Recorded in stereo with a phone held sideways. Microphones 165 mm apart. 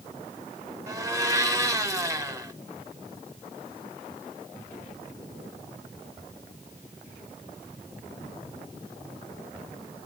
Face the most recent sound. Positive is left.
turn(degrees=-20)  # may be behind; listen again after turning